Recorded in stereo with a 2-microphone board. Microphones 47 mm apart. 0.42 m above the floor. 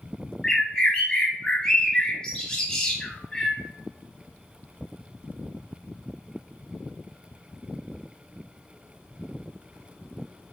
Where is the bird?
15° left (ahead or behind), 0.8 m.